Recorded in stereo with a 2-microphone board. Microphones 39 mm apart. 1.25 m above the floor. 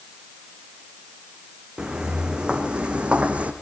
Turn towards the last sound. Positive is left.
turn(degrees=-35)  # may be behind; listen again after turning